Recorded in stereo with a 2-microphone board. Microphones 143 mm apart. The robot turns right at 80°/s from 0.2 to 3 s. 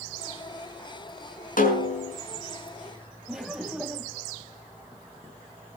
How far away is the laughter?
About 3 m.